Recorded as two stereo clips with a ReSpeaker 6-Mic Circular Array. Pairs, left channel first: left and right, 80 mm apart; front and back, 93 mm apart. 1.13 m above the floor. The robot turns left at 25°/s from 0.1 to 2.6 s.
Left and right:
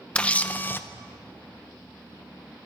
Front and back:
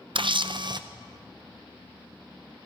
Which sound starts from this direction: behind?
A camera shutter, at 0.1 s.